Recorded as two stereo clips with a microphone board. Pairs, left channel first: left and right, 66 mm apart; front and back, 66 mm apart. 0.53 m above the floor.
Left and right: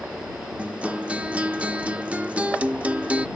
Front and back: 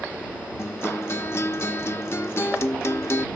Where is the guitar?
30° right.